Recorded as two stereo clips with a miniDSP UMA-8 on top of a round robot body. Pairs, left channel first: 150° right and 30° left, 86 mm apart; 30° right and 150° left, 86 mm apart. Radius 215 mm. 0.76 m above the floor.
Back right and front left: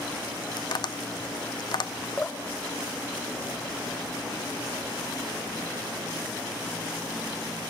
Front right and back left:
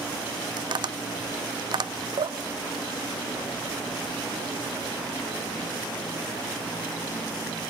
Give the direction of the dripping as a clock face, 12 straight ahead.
7 o'clock.